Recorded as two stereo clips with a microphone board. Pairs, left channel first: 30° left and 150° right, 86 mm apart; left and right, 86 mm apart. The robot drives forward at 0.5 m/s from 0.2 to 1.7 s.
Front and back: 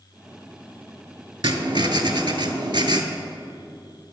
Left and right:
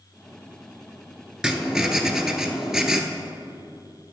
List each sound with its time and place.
1.4 s writing: 170° right, 0.5 m; by 3.0 s 175° right, 0.7 m